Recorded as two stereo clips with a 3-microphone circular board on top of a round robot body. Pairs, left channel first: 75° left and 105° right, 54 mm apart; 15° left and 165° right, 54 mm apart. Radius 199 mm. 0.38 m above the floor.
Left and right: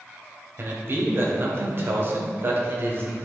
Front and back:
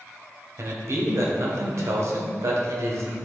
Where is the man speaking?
145° right, 2 m.